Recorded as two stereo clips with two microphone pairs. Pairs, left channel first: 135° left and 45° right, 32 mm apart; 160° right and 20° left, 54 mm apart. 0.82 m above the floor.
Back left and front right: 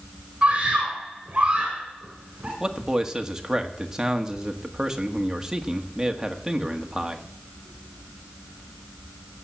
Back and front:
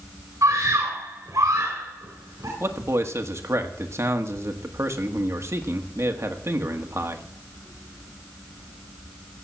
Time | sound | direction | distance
0.4 | a scream | 15° left | 4 m
2.6 | a man speaking | 35° left | 1.6 m